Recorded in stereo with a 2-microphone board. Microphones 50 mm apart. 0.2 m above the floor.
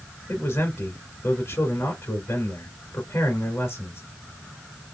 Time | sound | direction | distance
0.3 | a man speaking | 60° left (ahead or behind) | 2.0 m